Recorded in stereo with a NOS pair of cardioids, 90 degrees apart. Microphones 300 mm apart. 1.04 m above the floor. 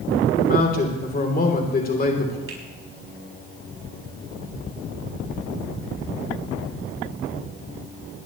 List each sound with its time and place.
0.4 s a man speaking: 30° left, 3 m
2.5 s a finger snap: 45° right, 6.5 m